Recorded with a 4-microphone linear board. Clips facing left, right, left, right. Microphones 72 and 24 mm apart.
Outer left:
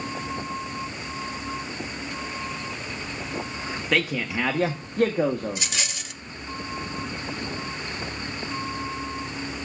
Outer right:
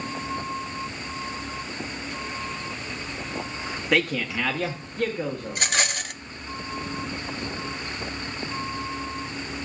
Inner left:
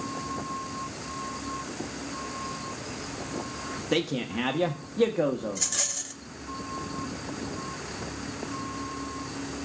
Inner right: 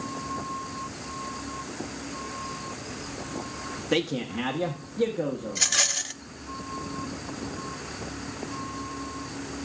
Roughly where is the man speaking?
Centre.